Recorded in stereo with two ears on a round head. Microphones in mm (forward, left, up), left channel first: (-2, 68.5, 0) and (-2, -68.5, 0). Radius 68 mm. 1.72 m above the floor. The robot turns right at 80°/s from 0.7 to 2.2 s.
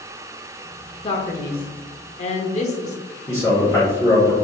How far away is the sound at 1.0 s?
About 0.7 m.